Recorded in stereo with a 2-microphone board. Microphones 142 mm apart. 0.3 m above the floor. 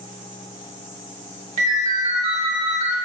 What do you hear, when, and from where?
1.6 s a ringtone: 50° right (ahead or behind), 0.8 m